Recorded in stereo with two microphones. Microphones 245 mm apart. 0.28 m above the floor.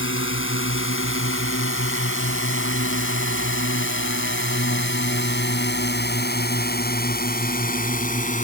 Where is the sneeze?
I don't hear a sneeze.